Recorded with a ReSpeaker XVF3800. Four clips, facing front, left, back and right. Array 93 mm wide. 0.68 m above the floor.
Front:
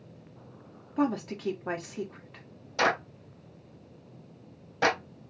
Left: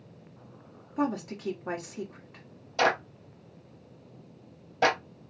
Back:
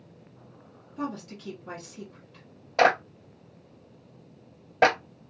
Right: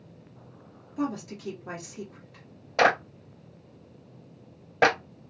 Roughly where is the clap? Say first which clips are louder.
Right 4 dB, back 5 dB; behind right.